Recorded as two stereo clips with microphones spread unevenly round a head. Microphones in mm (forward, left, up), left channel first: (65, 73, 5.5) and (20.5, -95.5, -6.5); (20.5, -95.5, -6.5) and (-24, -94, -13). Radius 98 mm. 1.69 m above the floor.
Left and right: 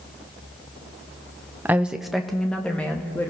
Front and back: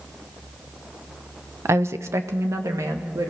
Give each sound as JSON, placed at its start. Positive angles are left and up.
{"t": 1.6, "sound": "a woman speaking", "azimuth_deg": 175, "distance_m": 0.9}